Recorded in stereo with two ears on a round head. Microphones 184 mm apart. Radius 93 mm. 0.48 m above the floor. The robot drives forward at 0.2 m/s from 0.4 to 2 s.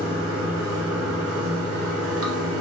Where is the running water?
80° right, 0.8 m.